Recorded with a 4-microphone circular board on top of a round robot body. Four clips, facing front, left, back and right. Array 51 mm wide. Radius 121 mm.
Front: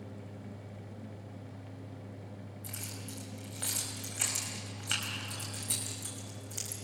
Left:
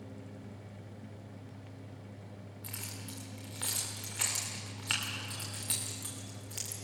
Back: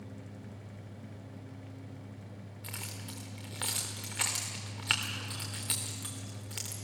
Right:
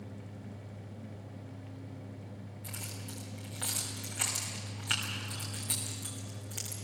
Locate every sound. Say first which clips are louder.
2.6 s keys jangling: right 1 dB, back 3 dB; 175° left, 3 m